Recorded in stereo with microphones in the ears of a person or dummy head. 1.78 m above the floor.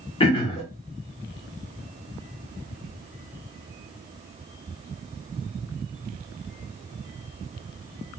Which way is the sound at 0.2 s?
25° left (ahead or behind).